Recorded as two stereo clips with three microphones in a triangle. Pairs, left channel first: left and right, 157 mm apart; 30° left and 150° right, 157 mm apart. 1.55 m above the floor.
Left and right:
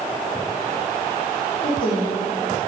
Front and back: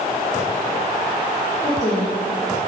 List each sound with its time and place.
1.6 s a woman speaking: 75° left, 1.6 m